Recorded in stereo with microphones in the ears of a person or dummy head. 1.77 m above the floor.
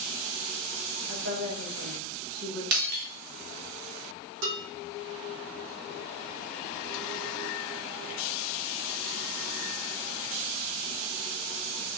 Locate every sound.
1.1 s a woman speaking: 75° right (ahead or behind), 2.5 m
2.7 s breaking glass: 45° right (ahead or behind), 1.3 m
4.4 s dishes clattering: 65° right (ahead or behind), 3.5 m